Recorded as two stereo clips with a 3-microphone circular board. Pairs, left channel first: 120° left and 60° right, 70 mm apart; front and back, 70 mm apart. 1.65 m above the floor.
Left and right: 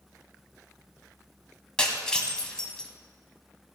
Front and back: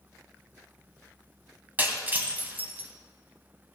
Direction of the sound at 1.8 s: Straight behind.